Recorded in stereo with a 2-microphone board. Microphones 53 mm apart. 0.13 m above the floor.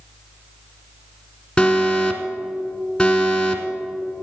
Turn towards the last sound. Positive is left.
turn(degrees=15)  # may be behind; listen again after turning